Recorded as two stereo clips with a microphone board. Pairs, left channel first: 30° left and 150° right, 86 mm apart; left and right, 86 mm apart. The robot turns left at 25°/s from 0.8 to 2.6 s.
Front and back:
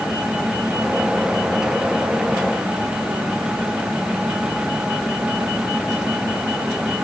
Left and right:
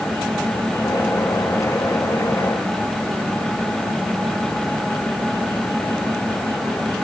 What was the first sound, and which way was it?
Only background noise.